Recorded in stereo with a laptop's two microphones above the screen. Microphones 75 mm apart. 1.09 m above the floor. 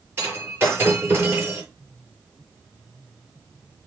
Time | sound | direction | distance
0.2 | breaking glass | 30° right (ahead or behind) | 5.5 m